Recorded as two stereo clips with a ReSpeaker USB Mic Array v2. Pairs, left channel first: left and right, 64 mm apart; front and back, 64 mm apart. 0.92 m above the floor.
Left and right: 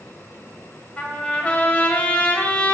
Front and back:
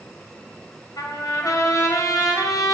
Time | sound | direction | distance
1.0 | a trumpet | 20° left | 2.5 m